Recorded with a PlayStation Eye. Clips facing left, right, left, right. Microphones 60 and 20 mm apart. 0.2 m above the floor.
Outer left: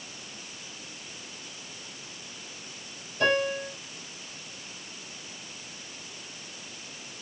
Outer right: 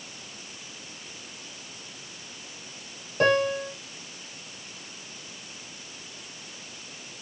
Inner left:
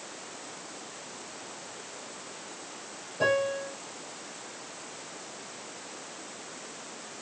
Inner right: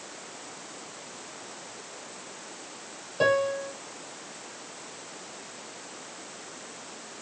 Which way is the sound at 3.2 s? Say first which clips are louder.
Outer right 3 dB, inner right 2 dB; 55° right (ahead or behind).